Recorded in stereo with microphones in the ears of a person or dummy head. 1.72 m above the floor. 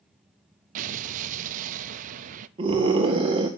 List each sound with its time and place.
0.8 s an explosion: 40° right (ahead or behind), 0.7 m
2.6 s a scream: 25° right (ahead or behind), 1.5 m